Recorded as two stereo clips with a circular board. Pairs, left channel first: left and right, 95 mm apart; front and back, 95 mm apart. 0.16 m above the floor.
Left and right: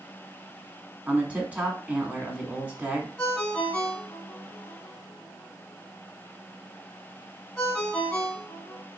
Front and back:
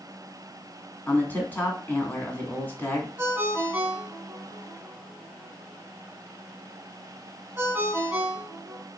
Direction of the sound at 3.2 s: 150° left.